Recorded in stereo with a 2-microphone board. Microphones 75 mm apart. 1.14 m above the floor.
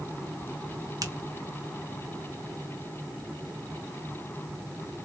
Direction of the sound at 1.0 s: 60° right (ahead or behind).